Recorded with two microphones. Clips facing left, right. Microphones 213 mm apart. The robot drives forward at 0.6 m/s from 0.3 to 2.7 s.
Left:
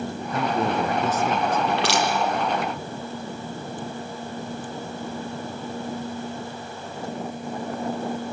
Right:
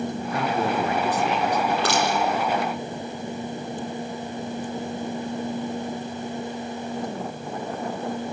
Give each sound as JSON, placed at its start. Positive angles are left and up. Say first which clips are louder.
{"t": 0.3, "sound": "a man speaking", "louder": "left 2 dB", "side_deg": 45, "distance_m": 4.5}
{"t": 1.7, "sound": "crushing", "louder": "even", "side_deg": 80, "distance_m": 6.0}